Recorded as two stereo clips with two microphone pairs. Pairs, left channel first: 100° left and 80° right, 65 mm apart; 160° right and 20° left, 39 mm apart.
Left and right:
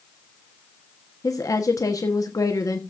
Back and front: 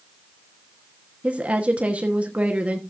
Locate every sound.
1.2 s a woman speaking: 70° left, 1.2 m